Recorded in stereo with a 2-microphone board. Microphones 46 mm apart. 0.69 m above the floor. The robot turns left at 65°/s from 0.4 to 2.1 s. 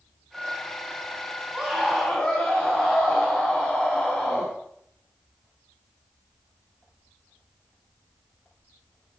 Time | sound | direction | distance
1.5 | a scream | 160° right | 4.5 m